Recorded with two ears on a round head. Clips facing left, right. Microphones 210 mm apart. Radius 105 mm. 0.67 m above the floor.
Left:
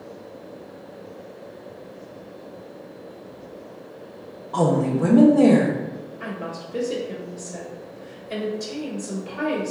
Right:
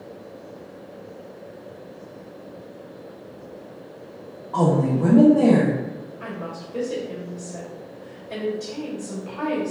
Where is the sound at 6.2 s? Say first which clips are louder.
Left 2 dB; 20° left (ahead or behind), 2 m.